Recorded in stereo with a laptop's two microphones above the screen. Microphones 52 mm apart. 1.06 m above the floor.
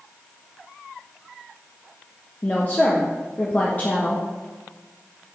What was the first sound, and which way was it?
A woman speaking, 30° left (ahead or behind).